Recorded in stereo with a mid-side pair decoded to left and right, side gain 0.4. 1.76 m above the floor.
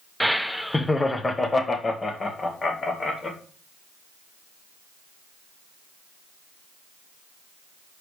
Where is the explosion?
I don't hear an explosion.